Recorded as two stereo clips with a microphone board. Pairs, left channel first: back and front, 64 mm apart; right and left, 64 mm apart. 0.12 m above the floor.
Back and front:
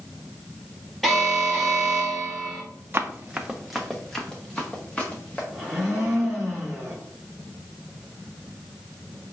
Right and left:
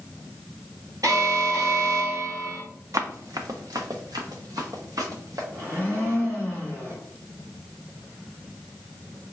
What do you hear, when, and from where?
1.0 s an alarm: 95° left, 1.7 m
2.9 s running footsteps: 55° left, 0.7 m; by 5.4 s 110° left, 1.8 m
5.5 s a blender: 90° left, 2 m